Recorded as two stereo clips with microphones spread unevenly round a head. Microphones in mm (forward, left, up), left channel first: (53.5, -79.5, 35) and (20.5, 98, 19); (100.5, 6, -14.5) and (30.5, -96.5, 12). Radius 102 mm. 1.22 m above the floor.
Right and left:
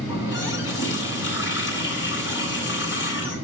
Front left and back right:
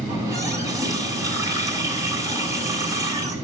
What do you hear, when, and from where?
0.1 s a running tap: 65° right, 6.5 m